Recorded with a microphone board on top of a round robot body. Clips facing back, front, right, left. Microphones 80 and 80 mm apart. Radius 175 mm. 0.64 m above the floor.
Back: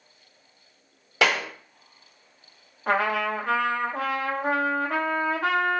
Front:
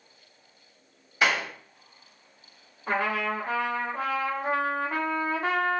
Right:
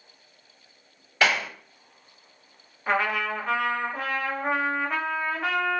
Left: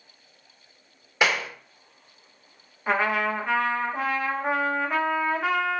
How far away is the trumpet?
About 1.5 m.